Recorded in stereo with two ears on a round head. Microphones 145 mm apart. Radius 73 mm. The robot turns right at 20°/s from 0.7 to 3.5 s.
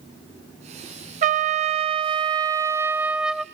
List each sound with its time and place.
1.2 s a trumpet: 45° right, 0.6 m; by 3.5 s straight ahead, 0.6 m